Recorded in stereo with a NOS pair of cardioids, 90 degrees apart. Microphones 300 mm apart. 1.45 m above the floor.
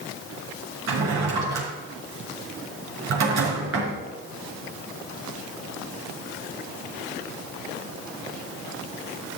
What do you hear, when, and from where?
0.9 s a drawer: 65° right, 4.5 m